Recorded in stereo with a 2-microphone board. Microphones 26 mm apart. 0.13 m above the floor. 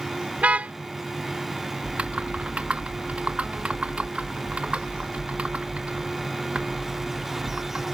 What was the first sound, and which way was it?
A car horn, 65° right (ahead or behind).